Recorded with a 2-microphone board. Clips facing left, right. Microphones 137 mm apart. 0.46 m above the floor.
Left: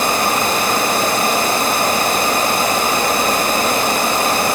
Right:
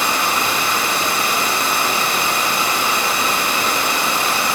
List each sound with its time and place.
0.0 s running water: 45° left (ahead or behind), 1.0 m